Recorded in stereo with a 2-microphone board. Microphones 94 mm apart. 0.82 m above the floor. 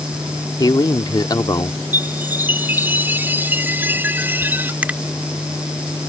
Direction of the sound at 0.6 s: 45° left (ahead or behind).